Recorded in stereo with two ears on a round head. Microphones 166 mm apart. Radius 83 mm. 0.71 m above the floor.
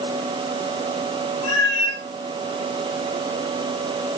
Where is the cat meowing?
40° left (ahead or behind), 5.5 m.